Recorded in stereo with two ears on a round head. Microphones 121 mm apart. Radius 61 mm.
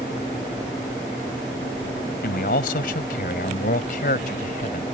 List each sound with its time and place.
2.2 s a man speaking: 75° left (ahead or behind); by 4.8 s 65° left (ahead or behind)